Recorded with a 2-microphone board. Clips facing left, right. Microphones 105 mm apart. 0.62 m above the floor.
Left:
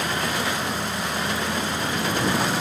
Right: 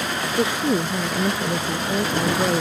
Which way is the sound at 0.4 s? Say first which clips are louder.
Right 6 dB; 65° right (ahead or behind).